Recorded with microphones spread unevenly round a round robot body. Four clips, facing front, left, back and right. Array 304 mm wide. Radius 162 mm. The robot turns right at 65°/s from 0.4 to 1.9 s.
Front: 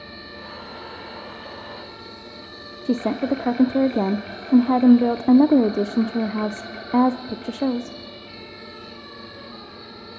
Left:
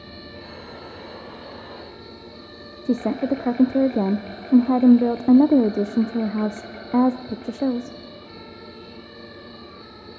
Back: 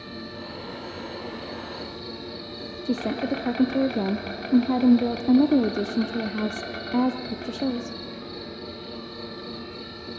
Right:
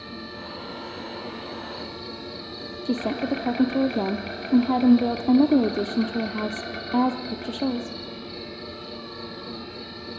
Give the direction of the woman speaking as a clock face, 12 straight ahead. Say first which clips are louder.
Left 4 dB, front 4 dB; 11 o'clock.